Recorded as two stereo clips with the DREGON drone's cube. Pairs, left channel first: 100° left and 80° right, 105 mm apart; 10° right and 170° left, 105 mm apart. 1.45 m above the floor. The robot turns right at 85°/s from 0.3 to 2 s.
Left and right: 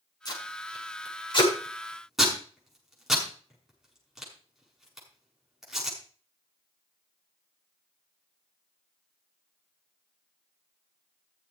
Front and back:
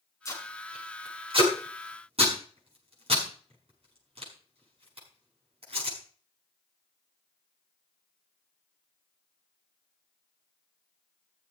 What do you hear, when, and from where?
0.2 s tape being pulled: 50° left, 6.5 m; by 6.0 s 170° right, 6.5 m